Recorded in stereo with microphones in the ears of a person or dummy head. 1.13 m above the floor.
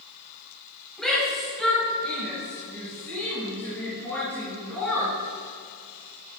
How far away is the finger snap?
I don't hear a finger snap.